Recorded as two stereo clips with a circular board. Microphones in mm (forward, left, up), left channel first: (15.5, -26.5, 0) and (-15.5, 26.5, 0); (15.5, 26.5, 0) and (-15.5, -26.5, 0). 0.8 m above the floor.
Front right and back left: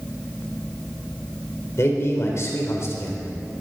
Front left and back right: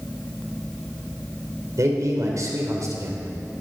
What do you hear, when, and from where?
1.8 s a man speaking: 100° right, 3.5 m